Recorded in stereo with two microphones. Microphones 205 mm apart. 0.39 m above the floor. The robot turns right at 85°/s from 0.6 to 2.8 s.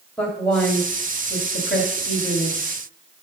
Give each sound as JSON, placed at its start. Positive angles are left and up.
{"t": 0.2, "sound": "a woman speaking", "side_deg": 5, "distance_m": 2.0}